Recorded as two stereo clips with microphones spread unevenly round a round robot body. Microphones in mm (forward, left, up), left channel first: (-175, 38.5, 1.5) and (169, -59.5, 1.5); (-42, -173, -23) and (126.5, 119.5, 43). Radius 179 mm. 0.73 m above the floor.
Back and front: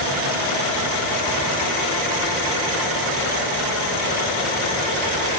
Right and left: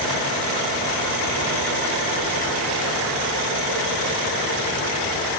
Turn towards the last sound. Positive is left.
No sound to turn to.